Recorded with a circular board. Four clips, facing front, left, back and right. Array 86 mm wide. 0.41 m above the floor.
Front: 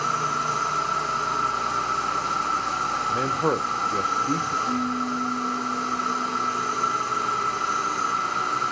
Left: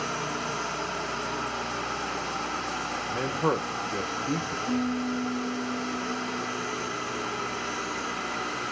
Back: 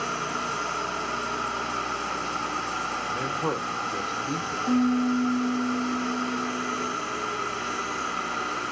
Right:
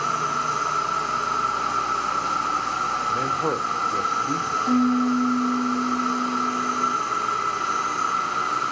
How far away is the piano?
About 1.4 m.